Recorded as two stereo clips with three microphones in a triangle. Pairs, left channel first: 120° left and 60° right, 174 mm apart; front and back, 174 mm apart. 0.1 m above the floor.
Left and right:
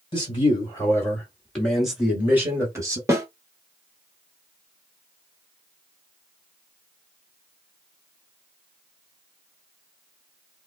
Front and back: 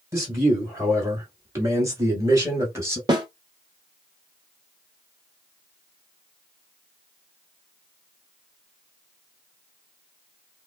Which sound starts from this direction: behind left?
A man speaking, at 0.1 s.